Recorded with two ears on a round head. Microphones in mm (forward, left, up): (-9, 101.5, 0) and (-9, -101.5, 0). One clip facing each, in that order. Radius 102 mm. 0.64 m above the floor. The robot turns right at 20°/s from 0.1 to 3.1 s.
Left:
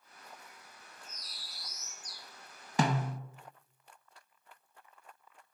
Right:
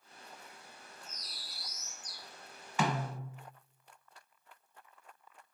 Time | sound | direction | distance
1.0 | a bird | 40° right (ahead or behind) | 1.5 m
2.8 | a snare drum | 30° left (ahead or behind) | 0.6 m